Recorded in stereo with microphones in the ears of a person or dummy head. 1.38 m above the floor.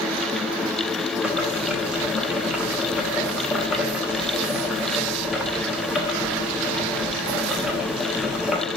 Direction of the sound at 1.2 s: 5° right (ahead or behind).